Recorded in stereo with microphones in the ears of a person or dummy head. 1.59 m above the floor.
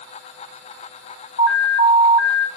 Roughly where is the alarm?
Left.